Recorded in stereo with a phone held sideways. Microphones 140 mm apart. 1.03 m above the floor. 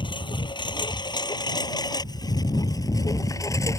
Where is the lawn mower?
35° left (ahead or behind); by 3.8 s 20° left (ahead or behind).